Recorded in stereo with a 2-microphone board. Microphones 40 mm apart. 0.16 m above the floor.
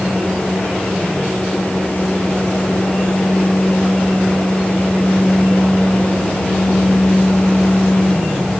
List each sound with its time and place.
Only background noise.